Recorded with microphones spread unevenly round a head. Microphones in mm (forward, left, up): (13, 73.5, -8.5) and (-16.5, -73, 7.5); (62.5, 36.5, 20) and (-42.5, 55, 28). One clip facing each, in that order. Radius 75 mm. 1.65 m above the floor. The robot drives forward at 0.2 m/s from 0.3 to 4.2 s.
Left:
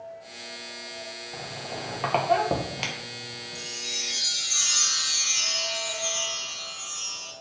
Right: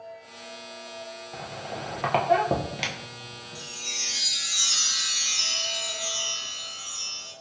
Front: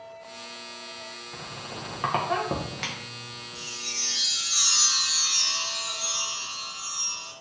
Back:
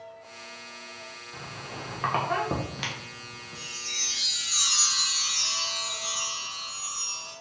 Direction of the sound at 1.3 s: 20° right.